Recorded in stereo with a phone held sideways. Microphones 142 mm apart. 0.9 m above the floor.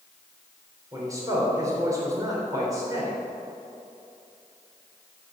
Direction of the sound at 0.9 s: 25° right (ahead or behind).